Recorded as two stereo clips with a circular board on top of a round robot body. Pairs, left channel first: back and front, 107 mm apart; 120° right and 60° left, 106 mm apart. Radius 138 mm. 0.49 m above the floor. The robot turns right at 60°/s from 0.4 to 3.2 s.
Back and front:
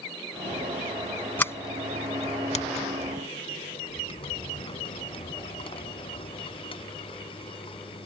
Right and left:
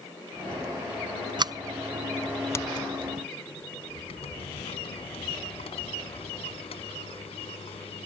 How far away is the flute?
No flute in this recording.